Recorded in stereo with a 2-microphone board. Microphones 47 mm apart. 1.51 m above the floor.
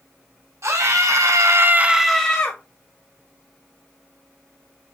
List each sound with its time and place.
0.6 s a scream: 80° right, 1.3 m; by 2.6 s 25° left (ahead or behind), 0.9 m